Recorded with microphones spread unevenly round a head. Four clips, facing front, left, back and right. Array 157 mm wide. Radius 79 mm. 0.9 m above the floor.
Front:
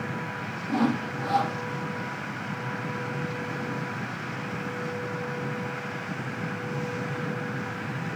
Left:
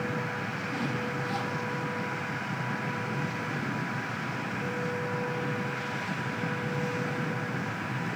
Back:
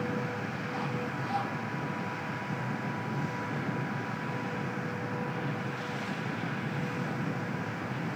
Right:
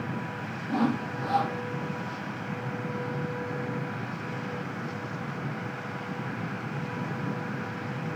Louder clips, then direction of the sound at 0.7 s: Right 7 dB, front 12 dB; 30° right.